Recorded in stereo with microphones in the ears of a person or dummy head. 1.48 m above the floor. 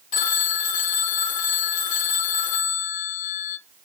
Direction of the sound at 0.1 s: 50° left (ahead or behind).